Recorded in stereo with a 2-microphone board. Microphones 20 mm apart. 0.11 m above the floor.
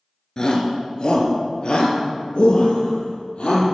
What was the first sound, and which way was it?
A shout, 35° left (ahead or behind).